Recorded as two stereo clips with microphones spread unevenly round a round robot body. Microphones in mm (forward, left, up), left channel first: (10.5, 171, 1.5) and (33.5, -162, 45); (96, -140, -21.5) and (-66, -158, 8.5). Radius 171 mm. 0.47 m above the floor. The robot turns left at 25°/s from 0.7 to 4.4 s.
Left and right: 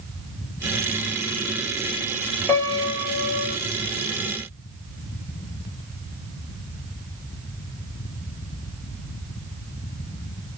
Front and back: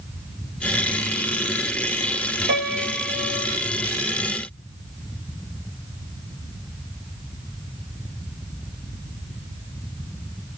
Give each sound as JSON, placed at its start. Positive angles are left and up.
{"t": 2.5, "sound": "a piano", "azimuth_deg": 170, "distance_m": 0.7}